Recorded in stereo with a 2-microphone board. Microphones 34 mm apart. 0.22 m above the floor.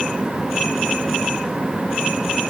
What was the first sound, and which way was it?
Only background noise.